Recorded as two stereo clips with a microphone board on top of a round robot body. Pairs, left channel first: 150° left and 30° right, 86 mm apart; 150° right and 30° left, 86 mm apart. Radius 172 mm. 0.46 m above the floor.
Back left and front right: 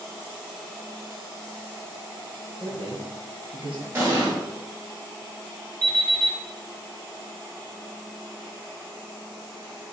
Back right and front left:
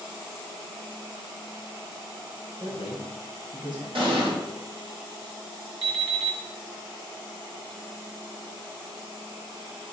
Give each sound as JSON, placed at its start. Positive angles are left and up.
{"t": 2.6, "sound": "a man speaking", "azimuth_deg": -15, "distance_m": 3.0}
{"t": 4.0, "sound": "an explosion", "azimuth_deg": 30, "distance_m": 2.5}
{"t": 5.8, "sound": "an alarm clock", "azimuth_deg": 15, "distance_m": 2.5}